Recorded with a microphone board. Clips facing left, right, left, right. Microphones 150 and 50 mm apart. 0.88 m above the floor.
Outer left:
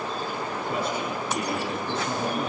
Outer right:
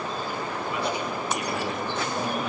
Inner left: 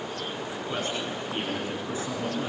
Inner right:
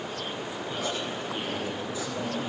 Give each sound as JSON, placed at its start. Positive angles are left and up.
{"t": 0.5, "sound": "a man speaking", "side_deg": 45, "distance_m": 8.5}